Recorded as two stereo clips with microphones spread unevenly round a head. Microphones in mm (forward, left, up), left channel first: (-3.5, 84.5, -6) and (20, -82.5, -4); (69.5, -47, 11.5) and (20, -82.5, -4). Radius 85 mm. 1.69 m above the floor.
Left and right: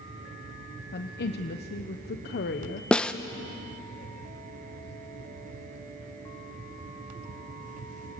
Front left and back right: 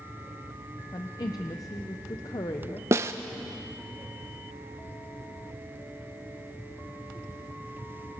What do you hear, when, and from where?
0.9 s a woman speaking: 70° left, 0.9 m
2.9 s a snare drum: straight behind, 0.8 m